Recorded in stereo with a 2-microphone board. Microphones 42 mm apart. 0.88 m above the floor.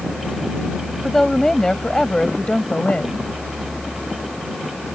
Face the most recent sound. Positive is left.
turn(degrees=35)  # may be behind; listen again after turning